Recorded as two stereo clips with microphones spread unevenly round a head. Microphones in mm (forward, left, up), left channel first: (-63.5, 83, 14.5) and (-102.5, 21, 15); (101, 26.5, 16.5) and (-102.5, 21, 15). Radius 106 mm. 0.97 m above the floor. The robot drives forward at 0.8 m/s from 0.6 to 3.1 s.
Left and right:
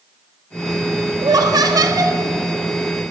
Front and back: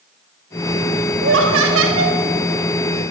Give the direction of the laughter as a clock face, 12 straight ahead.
5 o'clock.